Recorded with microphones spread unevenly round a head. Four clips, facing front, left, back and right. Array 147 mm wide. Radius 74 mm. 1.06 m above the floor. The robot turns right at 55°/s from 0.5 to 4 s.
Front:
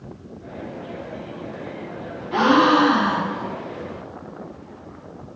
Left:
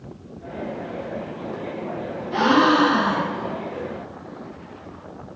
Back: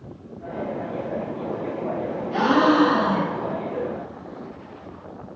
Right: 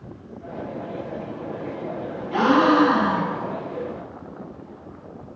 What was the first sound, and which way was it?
A gasp, 10° left.